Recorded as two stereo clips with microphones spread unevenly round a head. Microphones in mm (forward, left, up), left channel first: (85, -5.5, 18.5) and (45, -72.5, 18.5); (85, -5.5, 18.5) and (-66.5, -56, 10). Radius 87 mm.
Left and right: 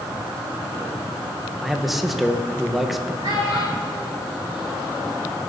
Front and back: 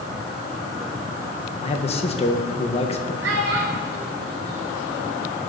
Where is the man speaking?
35° right, 1.8 m.